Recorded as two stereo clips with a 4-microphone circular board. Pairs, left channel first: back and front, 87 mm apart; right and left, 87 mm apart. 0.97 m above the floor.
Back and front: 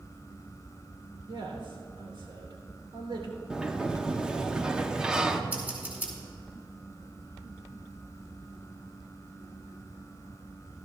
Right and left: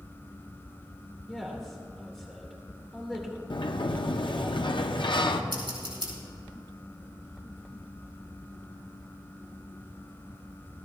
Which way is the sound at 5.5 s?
70° left.